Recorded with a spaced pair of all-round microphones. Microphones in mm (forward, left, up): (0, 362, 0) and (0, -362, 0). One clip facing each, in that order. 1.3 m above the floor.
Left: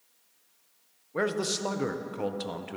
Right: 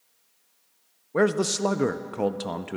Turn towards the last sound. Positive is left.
turn(degrees=-75)  # may be behind; listen again after turning